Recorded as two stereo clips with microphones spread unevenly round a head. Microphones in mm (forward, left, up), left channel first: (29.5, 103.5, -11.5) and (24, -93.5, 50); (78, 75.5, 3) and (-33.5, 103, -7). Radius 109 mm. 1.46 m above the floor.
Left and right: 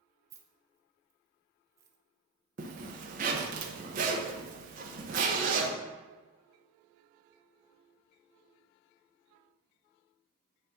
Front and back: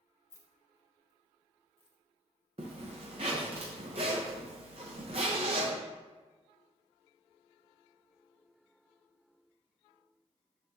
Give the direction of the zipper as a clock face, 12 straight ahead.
4 o'clock.